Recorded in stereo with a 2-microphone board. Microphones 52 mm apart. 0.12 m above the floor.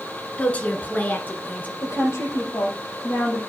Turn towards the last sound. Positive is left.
turn(degrees=70)  # may be behind; listen again after turning